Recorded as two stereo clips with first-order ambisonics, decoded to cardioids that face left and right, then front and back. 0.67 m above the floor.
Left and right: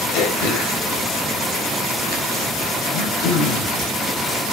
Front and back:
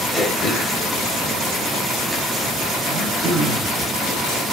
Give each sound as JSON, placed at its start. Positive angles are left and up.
{"t": 0.1, "sound": "throat clearing", "azimuth_deg": 85, "distance_m": 3.5}
{"t": 2.9, "sound": "throat clearing", "azimuth_deg": 125, "distance_m": 3.0}